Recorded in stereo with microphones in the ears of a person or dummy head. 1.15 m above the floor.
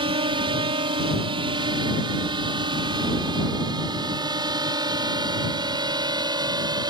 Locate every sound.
0.0 s a drone: 25° right (ahead or behind); by 6.9 s 20° right (ahead or behind)